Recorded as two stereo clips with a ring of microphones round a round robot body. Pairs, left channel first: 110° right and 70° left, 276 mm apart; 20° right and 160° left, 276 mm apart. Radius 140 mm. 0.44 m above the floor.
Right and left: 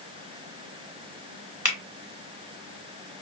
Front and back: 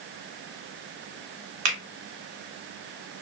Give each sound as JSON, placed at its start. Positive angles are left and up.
{"t": 1.6, "sound": "a finger snap", "azimuth_deg": 155, "distance_m": 1.8}